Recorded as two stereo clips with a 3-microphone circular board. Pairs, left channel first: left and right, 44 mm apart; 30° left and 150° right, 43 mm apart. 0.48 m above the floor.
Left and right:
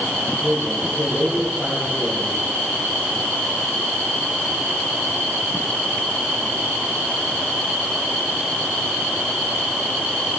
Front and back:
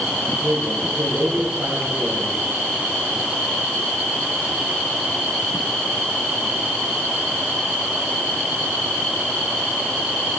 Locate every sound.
0.4 s a man speaking: 175° right, 3 m